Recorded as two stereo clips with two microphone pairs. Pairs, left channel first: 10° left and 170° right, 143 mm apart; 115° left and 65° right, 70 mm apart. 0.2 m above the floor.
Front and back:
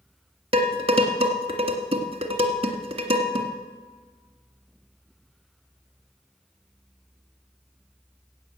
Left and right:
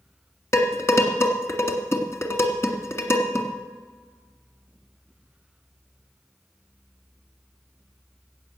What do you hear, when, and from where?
0.5 s dishes clattering: 155° left, 1.6 m